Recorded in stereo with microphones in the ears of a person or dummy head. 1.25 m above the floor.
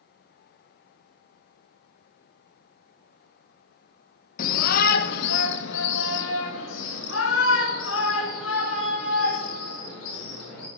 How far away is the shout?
About 0.9 m.